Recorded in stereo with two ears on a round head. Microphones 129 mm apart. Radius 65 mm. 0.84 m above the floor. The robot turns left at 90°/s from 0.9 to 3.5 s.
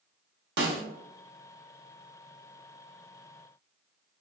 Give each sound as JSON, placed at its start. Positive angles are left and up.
{"t": 0.6, "sound": "a snare drum", "side_deg": -80, "distance_m": 0.7}